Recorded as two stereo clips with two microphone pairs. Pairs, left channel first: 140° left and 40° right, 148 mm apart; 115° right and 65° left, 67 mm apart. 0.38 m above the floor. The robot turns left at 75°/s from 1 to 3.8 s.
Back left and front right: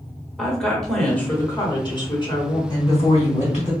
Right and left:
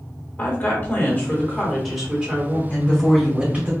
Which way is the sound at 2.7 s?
165° right.